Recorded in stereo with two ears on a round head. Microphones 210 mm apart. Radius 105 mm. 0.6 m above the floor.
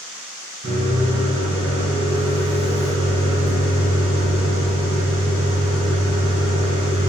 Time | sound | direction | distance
0.6 | a microwave | 70° right (ahead or behind) | 1.2 m